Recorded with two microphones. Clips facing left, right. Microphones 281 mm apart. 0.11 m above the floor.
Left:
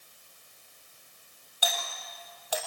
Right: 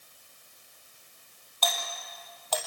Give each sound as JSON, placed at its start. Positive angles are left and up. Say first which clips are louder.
{"t": 1.6, "sound": "a doorbell", "louder": "right 1 dB", "side_deg": 10, "distance_m": 4.0}